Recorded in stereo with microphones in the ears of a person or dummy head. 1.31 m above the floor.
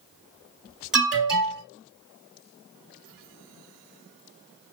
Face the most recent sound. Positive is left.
turn(degrees=0)  # may be behind; listen again after turning